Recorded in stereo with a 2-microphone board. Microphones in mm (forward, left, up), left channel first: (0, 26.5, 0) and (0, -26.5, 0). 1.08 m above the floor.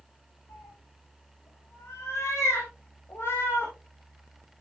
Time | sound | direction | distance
0.5 | a cat meowing | 75° left (ahead or behind) | 7 m